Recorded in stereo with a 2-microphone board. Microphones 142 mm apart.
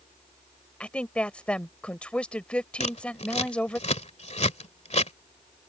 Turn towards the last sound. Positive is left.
turn(degrees=50)  # may be behind; listen again after turning